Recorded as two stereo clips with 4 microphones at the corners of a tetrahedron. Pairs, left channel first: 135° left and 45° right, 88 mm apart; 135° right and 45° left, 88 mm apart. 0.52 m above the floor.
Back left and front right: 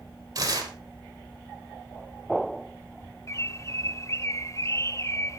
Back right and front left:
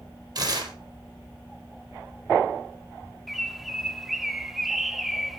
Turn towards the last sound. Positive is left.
turn(degrees=130)